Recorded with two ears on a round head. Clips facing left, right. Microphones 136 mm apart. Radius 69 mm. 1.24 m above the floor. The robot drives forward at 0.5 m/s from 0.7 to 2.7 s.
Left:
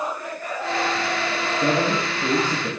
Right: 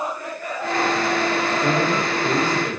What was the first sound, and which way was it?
A man speaking, 65° left (ahead or behind).